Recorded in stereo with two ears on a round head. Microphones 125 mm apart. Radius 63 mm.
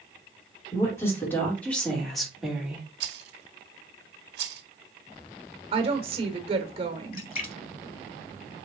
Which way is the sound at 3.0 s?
80° right.